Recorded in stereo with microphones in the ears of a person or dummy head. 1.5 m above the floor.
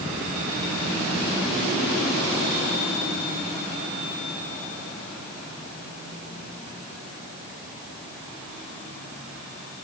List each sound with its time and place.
Only background noise.